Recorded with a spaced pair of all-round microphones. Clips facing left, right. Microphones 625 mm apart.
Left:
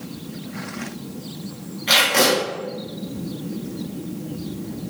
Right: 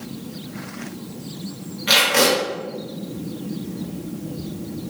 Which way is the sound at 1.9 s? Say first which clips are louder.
Right 1 dB; 35° right (ahead or behind).